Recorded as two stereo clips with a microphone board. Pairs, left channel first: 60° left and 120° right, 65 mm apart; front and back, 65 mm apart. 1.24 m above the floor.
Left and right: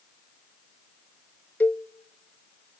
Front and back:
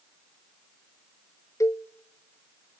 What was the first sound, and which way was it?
A cowbell, 5° left.